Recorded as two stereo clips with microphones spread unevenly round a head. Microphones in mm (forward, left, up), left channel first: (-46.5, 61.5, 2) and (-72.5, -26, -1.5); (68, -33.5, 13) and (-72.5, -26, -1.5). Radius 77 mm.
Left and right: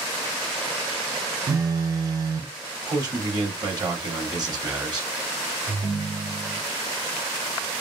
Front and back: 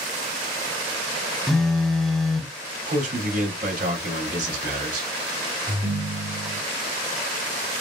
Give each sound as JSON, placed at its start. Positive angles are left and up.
{"t": 1.5, "sound": "a phone buzzing", "azimuth_deg": -80, "distance_m": 0.6}
{"t": 2.9, "sound": "a man speaking", "azimuth_deg": -155, "distance_m": 2.5}
{"t": 5.7, "sound": "a ringtone", "azimuth_deg": -110, "distance_m": 1.7}